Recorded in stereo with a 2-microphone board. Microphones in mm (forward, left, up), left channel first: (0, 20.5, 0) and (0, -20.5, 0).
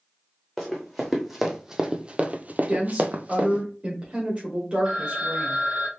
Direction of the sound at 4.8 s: 30° right (ahead or behind).